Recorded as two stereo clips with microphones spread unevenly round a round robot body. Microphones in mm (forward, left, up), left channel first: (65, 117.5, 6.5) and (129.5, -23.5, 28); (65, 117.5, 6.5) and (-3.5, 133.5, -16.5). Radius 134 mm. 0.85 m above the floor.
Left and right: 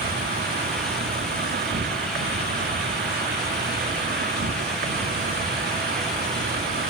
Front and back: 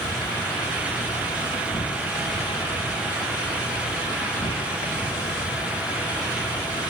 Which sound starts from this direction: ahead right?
An insect, at 0.0 s.